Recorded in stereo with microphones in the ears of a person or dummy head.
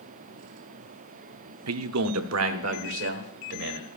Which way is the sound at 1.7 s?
80° right.